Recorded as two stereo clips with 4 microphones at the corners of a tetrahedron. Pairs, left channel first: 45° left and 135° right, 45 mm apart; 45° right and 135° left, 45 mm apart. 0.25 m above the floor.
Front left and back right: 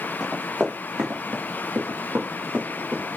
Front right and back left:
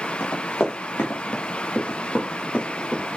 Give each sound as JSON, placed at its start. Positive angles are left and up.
{"t": 0.2, "sound": "running footsteps", "azimuth_deg": -70, "distance_m": 1.5}